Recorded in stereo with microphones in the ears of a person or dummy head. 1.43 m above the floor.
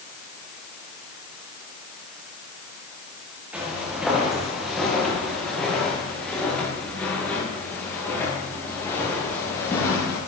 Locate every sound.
3.5 s footsteps: 5° right (ahead or behind), 7.5 m; by 10.2 s 15° left (ahead or behind), 11 m